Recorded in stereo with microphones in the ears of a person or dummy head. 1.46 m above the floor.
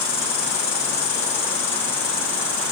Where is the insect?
65° left (ahead or behind), 1.8 m.